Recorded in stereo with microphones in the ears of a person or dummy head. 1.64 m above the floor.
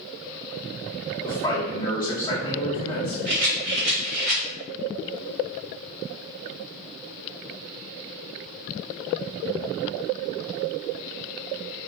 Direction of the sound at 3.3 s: 45° right (ahead or behind).